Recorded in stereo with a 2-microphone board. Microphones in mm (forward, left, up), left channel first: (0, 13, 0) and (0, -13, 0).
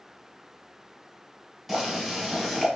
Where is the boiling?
10° right (ahead or behind), 1.8 m.